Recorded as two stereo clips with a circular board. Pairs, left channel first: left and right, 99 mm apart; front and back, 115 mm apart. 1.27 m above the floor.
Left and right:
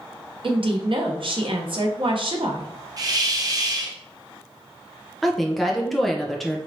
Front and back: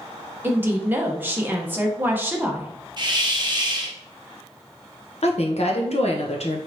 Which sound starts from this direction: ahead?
A woman speaking, at 5.2 s.